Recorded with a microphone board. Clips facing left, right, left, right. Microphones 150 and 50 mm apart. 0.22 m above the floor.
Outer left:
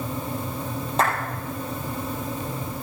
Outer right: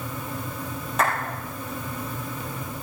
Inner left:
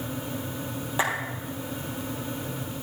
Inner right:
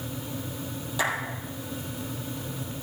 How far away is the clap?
About 5 m.